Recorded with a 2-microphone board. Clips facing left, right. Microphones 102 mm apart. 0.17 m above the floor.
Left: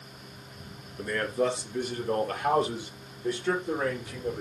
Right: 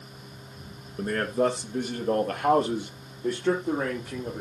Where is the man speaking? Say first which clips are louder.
Right 3 dB; 40° right (ahead or behind), 2 m; by 4.4 s 45° right (ahead or behind), 7 m.